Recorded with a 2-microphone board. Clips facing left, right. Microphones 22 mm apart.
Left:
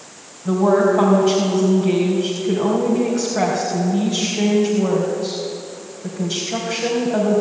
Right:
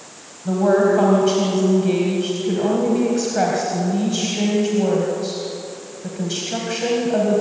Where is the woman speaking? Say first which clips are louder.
Left 1 dB; centre (ahead or behind), 4 m.